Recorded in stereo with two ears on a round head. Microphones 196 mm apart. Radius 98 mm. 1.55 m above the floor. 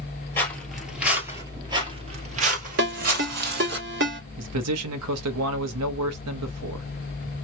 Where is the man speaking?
80° right, 1.0 m.